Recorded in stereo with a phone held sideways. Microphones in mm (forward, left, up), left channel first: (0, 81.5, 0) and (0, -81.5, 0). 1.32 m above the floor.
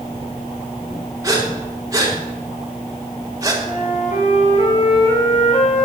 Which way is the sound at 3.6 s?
50° left (ahead or behind).